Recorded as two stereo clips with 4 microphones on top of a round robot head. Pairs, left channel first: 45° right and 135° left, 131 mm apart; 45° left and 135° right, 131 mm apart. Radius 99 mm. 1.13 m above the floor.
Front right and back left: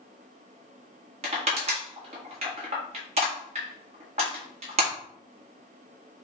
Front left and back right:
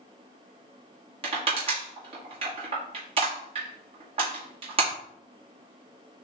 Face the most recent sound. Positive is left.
turn(degrees=175)